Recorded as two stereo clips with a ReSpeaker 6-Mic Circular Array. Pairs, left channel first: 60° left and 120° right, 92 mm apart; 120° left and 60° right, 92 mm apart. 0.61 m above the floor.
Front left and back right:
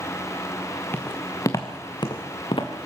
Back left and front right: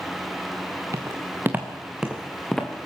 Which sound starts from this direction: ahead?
Footsteps, at 0.9 s.